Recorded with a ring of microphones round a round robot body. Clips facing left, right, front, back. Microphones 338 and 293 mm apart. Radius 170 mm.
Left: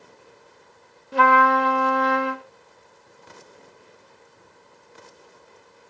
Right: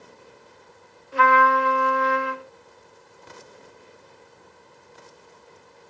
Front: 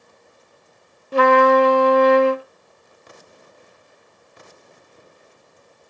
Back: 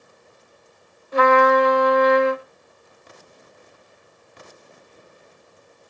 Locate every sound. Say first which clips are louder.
1.1 s a trumpet: left 2 dB, front 2 dB; 50° left, 0.9 m